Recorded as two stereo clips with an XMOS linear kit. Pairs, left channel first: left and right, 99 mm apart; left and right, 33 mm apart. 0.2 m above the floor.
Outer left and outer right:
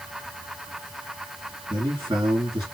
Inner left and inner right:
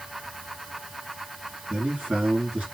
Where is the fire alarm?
No fire alarm in this recording.